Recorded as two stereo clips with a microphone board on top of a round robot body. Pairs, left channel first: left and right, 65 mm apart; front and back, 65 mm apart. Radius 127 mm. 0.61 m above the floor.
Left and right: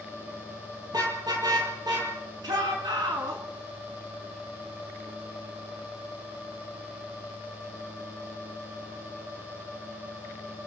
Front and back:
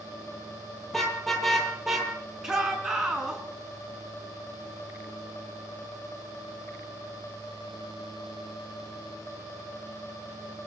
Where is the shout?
100° right, 9 m.